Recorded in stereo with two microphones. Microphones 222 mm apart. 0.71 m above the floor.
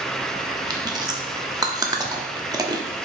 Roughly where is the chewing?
Centre.